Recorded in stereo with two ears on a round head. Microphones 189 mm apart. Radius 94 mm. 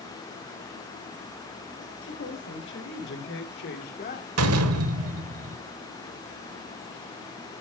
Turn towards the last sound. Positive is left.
turn(degrees=-80)